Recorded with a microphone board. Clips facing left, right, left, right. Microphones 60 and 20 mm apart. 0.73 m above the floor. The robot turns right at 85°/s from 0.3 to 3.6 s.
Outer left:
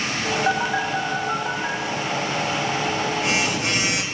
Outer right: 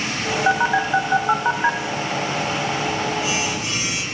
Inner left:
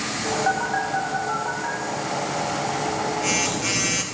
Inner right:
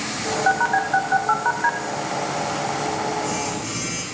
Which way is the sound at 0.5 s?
15° right (ahead or behind).